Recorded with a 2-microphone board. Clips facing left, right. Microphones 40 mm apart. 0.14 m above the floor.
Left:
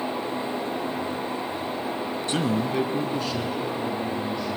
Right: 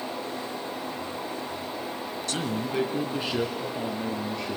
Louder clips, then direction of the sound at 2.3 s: Left 5 dB; 25° left (ahead or behind).